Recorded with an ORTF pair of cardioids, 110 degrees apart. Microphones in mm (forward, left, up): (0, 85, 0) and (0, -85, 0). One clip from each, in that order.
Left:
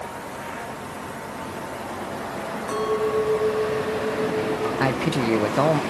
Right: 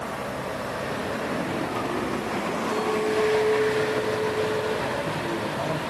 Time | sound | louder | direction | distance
2.7 | a clink | left 3 dB | 45° left | 5.5 m
4.8 | a man speaking | left 4 dB | 60° left | 1.2 m